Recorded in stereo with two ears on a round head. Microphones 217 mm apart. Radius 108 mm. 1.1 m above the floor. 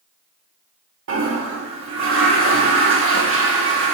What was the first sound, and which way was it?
A toilet flushing, 55° right (ahead or behind).